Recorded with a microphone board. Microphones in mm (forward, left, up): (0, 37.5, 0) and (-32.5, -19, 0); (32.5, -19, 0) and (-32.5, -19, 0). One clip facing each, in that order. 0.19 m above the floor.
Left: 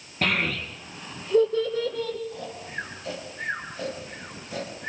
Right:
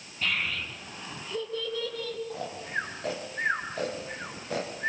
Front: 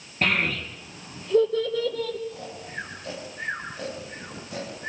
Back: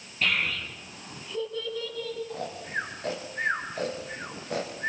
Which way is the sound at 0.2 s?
45° left.